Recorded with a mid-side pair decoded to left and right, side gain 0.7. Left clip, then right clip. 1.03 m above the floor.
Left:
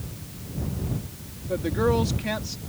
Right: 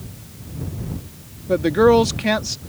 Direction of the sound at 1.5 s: 40° right.